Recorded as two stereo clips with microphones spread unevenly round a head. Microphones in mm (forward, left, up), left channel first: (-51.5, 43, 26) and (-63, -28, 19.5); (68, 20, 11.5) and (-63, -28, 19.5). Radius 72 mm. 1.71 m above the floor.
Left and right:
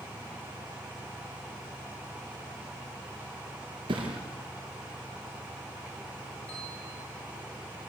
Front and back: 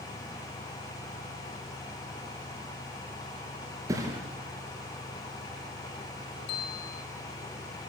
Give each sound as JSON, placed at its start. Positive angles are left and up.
{"t": 3.9, "sound": "a thud", "azimuth_deg": -95, "distance_m": 5.0}
{"t": 6.5, "sound": "a bell", "azimuth_deg": 0, "distance_m": 3.0}